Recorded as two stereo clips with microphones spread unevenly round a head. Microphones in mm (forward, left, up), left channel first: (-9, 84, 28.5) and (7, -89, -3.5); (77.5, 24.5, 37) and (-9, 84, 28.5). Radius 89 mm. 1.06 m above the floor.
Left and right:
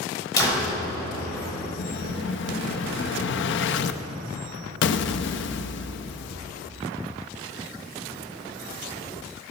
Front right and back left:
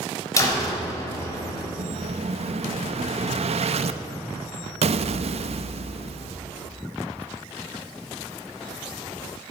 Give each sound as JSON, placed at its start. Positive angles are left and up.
{"t": 0.4, "sound": "a door slam", "azimuth_deg": 25, "distance_m": 4.0}
{"t": 1.8, "sound": "an explosion", "azimuth_deg": 120, "distance_m": 0.7}